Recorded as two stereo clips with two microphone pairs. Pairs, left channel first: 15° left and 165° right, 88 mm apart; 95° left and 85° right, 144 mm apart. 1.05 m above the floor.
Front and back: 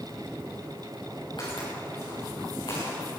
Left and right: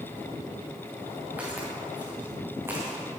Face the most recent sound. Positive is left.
turn(degrees=-15)